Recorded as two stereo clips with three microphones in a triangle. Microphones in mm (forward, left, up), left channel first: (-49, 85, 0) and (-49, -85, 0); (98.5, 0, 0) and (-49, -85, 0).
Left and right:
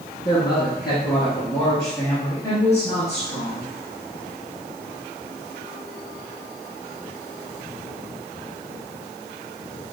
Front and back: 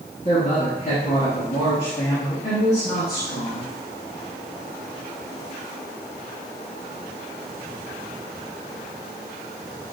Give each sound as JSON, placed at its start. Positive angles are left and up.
{"t": 0.2, "sound": "a woman speaking", "azimuth_deg": 35, "distance_m": 2.0}